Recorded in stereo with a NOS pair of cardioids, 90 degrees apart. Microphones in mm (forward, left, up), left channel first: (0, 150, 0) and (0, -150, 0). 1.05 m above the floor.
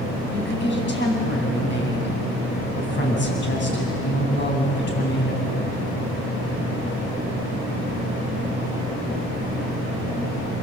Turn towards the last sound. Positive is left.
turn(degrees=40)